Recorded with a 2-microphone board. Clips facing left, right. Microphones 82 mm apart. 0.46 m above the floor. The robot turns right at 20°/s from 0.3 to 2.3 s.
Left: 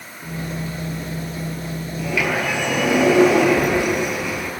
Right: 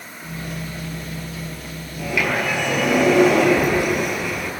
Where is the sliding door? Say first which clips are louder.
Even; 10° right (ahead or behind), 6.5 m; by 4.5 s centre (ahead or behind), 6.5 m.